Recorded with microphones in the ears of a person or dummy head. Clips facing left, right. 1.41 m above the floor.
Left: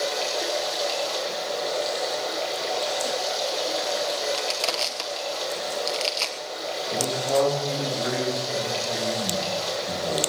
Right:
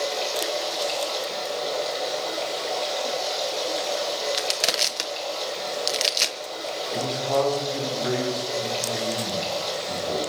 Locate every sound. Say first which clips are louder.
0.0 s running water: even; centre (ahead or behind), 4 m
4.3 s crushing: even; 25° right (ahead or behind), 1.1 m
6.9 s a man speaking: left 1 dB; 30° left (ahead or behind), 9 m